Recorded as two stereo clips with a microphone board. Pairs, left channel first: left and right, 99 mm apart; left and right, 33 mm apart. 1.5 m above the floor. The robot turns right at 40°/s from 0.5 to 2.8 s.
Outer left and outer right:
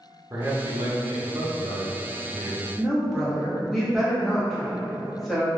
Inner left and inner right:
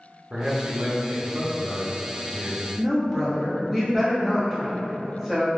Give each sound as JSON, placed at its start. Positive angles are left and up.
{"t": 0.3, "sound": "a man speaking", "azimuth_deg": -150, "distance_m": 0.7}
{"t": 2.8, "sound": "a woman speaking", "side_deg": 0, "distance_m": 0.9}